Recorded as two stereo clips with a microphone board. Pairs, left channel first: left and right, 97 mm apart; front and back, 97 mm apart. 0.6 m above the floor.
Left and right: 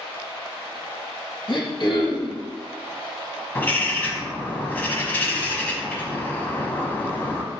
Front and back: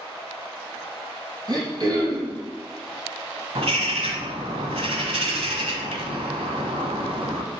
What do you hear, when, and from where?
1.5 s throat clearing: 135° left, 2.5 m
3.5 s a bird: 160° left, 1.3 m